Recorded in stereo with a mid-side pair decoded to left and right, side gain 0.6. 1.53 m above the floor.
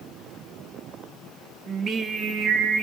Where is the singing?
30° right, 2 m.